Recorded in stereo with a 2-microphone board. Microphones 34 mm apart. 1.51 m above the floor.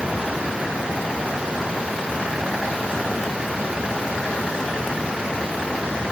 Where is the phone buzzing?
I don't hear a phone buzzing.